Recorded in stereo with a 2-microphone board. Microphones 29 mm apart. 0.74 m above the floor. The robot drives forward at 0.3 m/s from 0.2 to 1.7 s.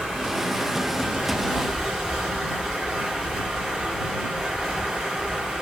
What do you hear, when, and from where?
0.0 s running water: 20° right (ahead or behind), 3 m; by 5.6 s 25° right (ahead or behind), 2.5 m